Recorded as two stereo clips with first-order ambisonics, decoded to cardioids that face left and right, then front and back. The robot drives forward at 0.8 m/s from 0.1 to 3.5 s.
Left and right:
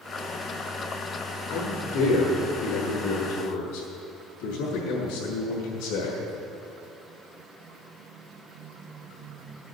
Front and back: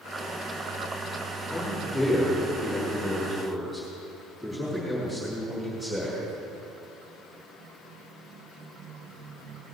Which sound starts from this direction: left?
A man speaking, at 1.5 s.